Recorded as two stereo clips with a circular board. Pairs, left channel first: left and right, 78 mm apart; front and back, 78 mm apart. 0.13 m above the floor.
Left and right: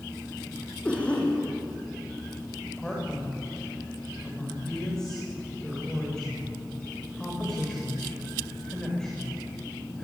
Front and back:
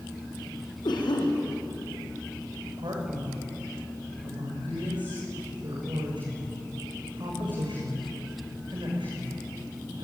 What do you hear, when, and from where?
0.8 s a cough: 15° left, 6 m
2.8 s a man speaking: 170° left, 10 m